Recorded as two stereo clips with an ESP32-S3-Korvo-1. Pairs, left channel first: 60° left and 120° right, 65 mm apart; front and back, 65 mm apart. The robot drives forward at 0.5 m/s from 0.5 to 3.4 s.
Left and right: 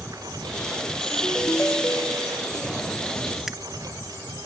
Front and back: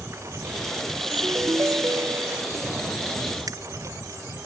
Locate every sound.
0.0 s a lawn mower: 135° right; by 4.5 s 140° right
1.1 s a ringtone: 125° left; by 2.5 s 130° left
3.5 s scissors: 155° left